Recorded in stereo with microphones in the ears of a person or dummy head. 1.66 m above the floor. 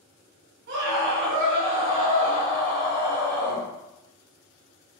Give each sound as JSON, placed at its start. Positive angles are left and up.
{"t": 0.7, "sound": "a scream", "side_deg": -55, "distance_m": 0.9}